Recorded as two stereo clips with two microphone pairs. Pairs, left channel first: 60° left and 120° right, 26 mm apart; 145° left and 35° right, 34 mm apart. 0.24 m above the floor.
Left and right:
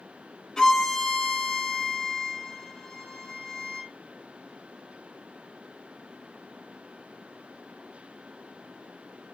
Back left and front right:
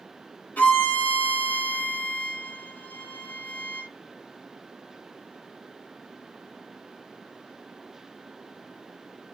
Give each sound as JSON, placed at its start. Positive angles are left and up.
{"t": 0.6, "sound": "a violin", "azimuth_deg": 120, "distance_m": 2.5}